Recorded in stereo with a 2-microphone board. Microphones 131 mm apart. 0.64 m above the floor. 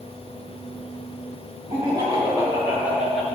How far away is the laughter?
About 1.9 m.